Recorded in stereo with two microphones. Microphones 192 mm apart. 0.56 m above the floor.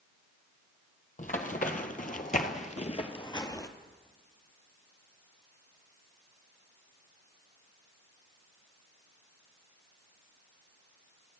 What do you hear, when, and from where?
1.2 s running footsteps: 40° left (ahead or behind), 1.0 m; by 3.7 s 15° left (ahead or behind), 0.8 m